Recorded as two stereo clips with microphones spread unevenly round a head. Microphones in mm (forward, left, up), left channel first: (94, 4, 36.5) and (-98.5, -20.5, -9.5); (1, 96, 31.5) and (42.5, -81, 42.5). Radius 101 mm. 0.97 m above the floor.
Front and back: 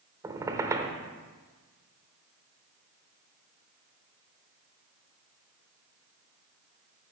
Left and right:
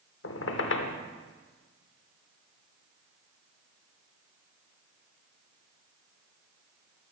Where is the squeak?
105° left, 0.8 m.